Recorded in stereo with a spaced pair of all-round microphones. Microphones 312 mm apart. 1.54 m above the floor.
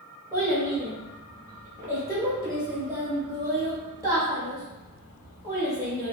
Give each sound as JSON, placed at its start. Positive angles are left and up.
{"t": 0.3, "sound": "a child speaking", "side_deg": -10, "distance_m": 0.8}